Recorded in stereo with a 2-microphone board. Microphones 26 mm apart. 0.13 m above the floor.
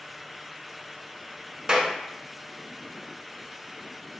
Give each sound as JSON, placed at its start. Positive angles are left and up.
{"t": 1.7, "sound": "a clap", "side_deg": -25, "distance_m": 1.0}